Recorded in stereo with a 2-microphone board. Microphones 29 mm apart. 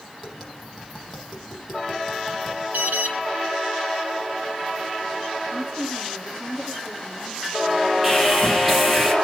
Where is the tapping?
Centre (ahead or behind), 7.5 m.